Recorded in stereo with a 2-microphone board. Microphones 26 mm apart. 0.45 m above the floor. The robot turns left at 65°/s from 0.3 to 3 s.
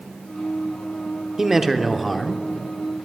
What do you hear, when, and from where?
1.4 s a man speaking: 15° right (ahead or behind), 0.8 m; by 2.4 s 10° left (ahead or behind), 0.8 m